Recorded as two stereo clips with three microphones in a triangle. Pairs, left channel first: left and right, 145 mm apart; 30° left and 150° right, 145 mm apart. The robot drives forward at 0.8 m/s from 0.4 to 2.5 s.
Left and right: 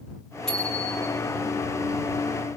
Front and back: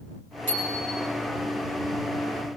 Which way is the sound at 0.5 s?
5° left.